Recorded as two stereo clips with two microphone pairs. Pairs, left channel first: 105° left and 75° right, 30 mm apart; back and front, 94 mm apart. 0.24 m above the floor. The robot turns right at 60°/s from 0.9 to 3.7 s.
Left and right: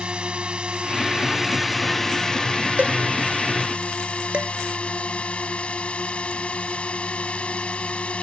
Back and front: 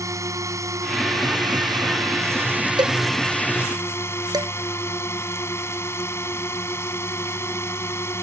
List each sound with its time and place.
0.0 s a drone: 40° right; by 8.2 s 130° left
2.8 s a cowbell: 40° right; by 3.0 s 25° right
4.3 s dishes clattering: 40° right